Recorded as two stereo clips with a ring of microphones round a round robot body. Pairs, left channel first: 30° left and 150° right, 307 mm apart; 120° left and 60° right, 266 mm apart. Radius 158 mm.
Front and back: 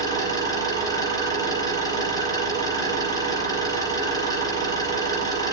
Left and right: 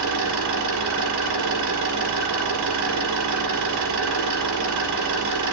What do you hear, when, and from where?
0.0 s an engine running: 50° right, 4.5 m